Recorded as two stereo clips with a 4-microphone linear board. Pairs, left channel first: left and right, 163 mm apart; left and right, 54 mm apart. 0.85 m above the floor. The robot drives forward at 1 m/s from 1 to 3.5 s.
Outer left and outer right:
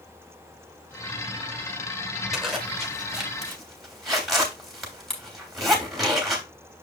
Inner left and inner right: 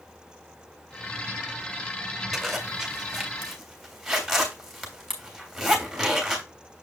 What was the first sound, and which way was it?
A zipper, centre (ahead or behind).